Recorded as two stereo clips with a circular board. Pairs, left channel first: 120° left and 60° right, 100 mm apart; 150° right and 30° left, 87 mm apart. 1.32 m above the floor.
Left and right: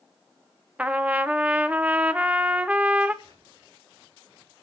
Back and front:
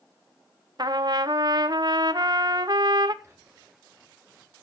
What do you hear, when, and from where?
0.8 s a trumpet: 15° left, 0.7 m
3.2 s whispering: 30° right, 5 m